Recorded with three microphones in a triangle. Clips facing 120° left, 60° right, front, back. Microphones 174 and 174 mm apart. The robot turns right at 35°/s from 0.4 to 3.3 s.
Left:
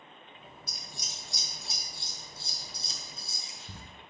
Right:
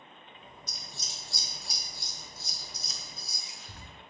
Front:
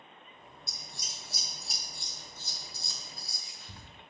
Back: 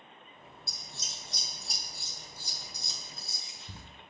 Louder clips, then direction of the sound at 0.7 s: Even, even; 50° left.